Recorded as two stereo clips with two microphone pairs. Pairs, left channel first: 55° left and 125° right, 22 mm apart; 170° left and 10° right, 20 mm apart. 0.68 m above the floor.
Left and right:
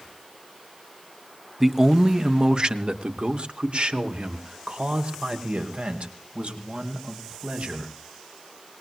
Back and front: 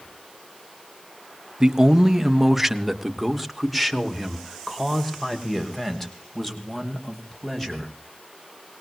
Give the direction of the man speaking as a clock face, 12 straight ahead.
2 o'clock.